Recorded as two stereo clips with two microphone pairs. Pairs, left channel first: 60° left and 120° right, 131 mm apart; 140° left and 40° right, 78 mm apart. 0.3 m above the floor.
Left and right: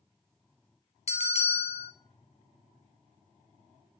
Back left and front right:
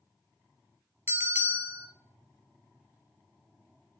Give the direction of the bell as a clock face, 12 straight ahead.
11 o'clock.